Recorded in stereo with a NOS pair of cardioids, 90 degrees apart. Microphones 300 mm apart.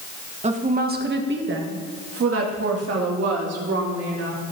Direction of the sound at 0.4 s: 20° right.